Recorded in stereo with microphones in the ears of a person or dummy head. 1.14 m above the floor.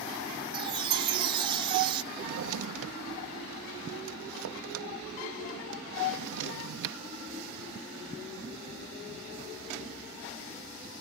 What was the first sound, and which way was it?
A chime, 30° right (ahead or behind).